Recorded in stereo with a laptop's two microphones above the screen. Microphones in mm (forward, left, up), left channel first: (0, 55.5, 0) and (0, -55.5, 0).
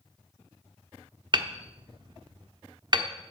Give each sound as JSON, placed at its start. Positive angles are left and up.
{"t": 1.3, "sound": "hammering", "side_deg": -40, "distance_m": 1.1}